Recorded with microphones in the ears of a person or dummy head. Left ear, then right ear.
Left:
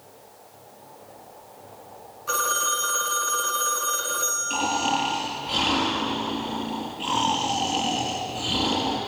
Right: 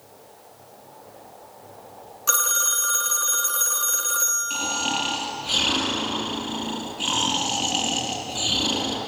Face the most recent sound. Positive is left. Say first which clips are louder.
# left 1 dB
turn(degrees=-20)  # may be behind; listen again after turning